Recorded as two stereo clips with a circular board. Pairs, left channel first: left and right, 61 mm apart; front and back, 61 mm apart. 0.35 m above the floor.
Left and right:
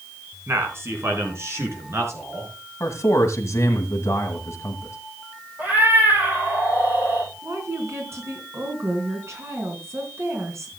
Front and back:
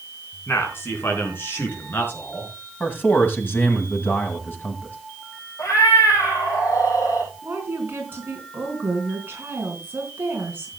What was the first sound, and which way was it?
A man speaking, 45° right.